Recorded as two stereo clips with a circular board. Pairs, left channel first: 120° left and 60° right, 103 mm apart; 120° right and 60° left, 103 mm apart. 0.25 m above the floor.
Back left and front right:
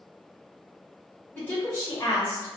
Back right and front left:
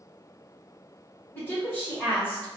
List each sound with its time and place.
1.4 s a woman speaking: 175° right, 2 m